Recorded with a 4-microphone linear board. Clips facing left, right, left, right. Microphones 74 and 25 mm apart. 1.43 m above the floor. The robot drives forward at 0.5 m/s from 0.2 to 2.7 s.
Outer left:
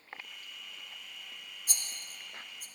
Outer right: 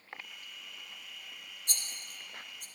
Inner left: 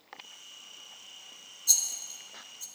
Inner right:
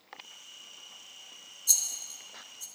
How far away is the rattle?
About 1.6 m.